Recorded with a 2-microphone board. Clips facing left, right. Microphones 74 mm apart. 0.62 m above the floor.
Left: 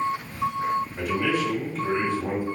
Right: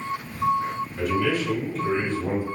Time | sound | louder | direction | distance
1.0 | a man speaking | right 1 dB | 40° left (ahead or behind) | 1.6 m